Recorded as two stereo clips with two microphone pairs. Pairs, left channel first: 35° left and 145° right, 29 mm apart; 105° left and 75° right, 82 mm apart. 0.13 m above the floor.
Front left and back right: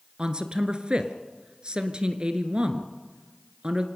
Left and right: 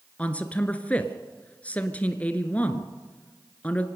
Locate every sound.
0.2 s a man speaking: 170° left, 1.6 m